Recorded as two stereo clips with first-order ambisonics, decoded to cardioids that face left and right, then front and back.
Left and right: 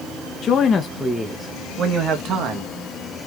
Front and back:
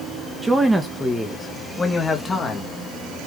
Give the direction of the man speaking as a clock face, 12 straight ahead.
9 o'clock.